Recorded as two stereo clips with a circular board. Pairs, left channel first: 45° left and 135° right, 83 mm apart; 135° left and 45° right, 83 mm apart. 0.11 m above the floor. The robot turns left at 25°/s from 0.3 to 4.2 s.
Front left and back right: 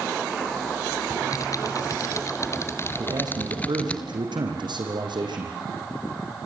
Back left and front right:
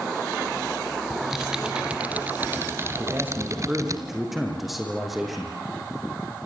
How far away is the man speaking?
About 5.5 m.